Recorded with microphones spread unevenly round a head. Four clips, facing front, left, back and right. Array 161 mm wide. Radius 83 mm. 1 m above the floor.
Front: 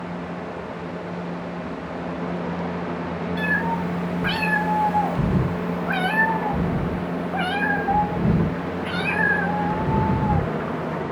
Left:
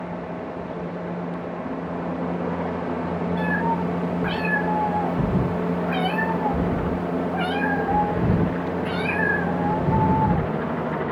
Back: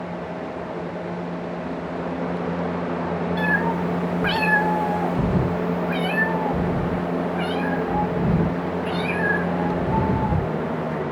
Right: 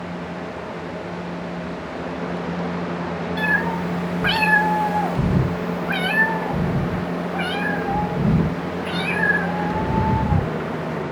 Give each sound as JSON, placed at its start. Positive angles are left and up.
{"t": 3.4, "sound": "a cat meowing", "azimuth_deg": -125, "distance_m": 1.1}